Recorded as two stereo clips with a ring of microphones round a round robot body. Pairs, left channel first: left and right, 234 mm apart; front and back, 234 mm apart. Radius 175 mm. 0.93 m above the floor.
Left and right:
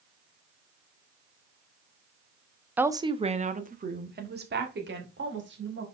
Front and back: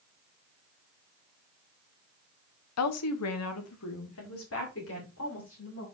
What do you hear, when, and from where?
2.8 s a woman speaking: 5° right, 0.9 m; by 5.8 s 50° right, 3 m